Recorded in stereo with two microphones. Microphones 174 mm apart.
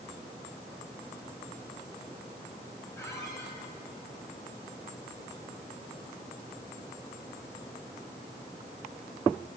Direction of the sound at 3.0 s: 15° left (ahead or behind).